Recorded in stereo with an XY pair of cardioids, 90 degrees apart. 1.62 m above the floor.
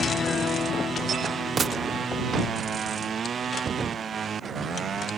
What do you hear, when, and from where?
1.6 s a gunshot: 40° right